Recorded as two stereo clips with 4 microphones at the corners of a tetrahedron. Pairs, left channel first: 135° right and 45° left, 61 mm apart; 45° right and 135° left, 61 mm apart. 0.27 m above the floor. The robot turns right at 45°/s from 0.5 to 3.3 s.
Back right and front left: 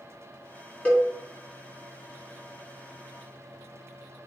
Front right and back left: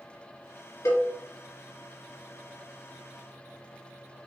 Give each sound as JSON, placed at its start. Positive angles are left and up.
{"t": 0.8, "sound": "a cowbell", "azimuth_deg": -65, "distance_m": 2.0}